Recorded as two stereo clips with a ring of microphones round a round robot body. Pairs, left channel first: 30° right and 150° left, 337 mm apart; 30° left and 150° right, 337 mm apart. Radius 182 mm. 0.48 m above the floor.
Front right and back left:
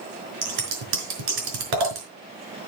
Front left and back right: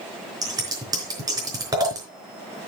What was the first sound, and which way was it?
Scissors, 130° left.